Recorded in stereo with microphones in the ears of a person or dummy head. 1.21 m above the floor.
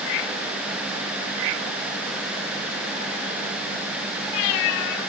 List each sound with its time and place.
Only background noise.